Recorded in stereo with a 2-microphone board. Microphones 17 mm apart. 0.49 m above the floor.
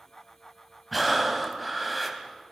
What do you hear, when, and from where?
0.9 s breathing: 5° left (ahead or behind), 2.5 m